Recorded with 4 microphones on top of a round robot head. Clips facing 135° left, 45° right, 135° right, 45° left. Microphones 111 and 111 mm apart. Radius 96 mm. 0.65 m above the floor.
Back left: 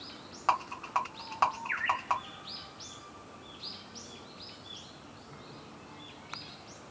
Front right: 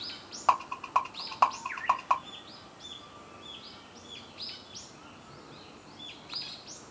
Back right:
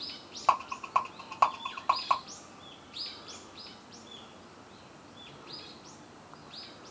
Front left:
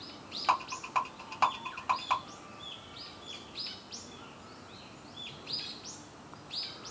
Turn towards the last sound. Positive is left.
turn(degrees=-115)